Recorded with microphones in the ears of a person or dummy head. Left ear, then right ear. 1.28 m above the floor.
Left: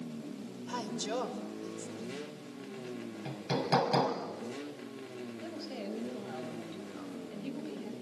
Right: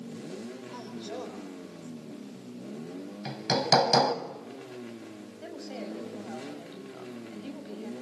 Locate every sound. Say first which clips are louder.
0.7 s a woman speaking: left 7 dB; 70° left (ahead or behind), 5 m
3.2 s hammering: right 7 dB; 45° right (ahead or behind), 2 m
5.4 s a woman speaking: right 4 dB; 10° right (ahead or behind), 6.5 m